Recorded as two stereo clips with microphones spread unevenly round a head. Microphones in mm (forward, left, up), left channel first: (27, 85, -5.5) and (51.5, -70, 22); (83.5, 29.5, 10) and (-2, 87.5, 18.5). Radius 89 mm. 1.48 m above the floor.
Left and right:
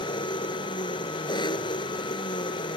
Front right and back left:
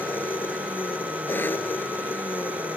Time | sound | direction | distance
0.0 | an engine running | 35° left | ?